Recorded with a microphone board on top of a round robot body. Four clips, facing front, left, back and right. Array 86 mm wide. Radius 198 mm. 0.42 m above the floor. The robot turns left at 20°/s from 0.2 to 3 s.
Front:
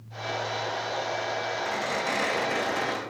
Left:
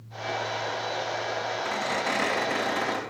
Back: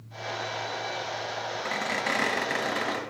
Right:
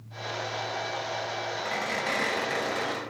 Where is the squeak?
160° right, 3 m; by 3.0 s 170° left, 3 m.